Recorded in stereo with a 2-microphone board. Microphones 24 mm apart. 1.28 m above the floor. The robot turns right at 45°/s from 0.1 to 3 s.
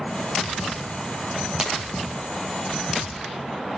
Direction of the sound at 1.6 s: 30° right (ahead or behind).